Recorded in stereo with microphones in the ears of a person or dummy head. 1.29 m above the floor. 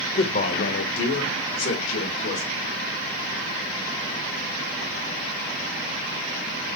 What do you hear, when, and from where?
0.1 s a man speaking: 35° left (ahead or behind), 0.6 m; by 2.5 s 85° left, 2 m